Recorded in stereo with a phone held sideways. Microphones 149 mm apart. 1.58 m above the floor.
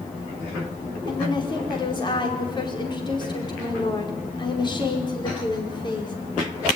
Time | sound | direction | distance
1.1 | a woman speaking | 30° left (ahead or behind) | 5 m